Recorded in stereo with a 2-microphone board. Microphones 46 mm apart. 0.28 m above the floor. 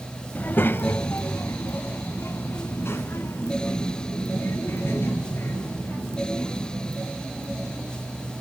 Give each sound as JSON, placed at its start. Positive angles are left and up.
{"t": 0.3, "sound": "a child speaking", "side_deg": 35, "distance_m": 0.7}